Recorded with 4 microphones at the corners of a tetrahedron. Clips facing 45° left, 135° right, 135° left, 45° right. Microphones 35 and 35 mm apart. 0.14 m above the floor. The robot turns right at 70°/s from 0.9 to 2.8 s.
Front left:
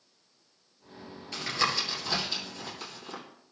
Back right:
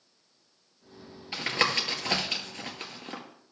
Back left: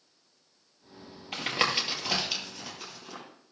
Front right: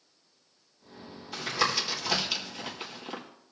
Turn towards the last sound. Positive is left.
turn(degrees=-95)